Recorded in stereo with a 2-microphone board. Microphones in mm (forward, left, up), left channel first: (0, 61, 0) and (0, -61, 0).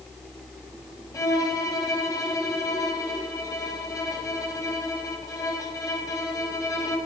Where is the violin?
25° left (ahead or behind), 2.5 m.